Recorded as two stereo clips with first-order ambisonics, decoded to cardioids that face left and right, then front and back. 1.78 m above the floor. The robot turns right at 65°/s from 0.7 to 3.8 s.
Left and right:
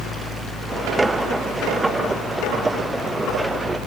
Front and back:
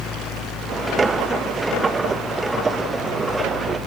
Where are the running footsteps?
No running footsteps in this recording.